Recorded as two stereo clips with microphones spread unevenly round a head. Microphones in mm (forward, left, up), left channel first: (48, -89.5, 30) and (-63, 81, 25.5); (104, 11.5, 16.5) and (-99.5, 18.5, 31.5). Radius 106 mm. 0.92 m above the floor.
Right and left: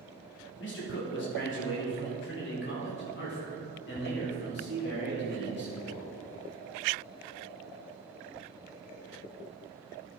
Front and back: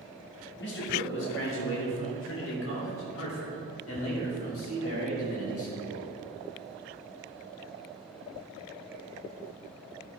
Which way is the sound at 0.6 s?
30° right.